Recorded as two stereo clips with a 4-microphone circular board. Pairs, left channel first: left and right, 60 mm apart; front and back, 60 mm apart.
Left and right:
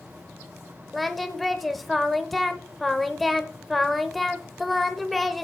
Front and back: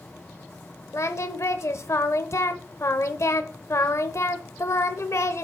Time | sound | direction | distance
0.9 | singing | straight ahead | 0.8 m